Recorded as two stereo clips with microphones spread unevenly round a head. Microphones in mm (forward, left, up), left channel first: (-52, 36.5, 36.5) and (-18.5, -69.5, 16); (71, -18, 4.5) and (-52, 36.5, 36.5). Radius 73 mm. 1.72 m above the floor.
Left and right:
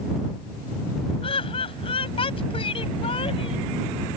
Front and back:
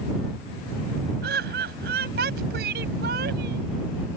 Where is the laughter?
145° left.